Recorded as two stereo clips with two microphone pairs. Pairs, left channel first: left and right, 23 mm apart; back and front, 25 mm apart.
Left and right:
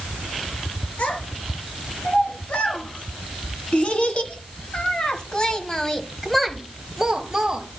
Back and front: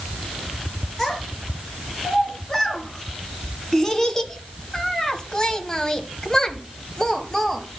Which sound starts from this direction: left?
A child speaking, at 1.0 s.